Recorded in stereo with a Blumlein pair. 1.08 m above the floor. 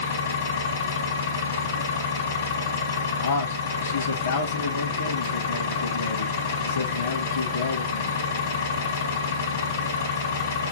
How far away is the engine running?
About 1.0 m.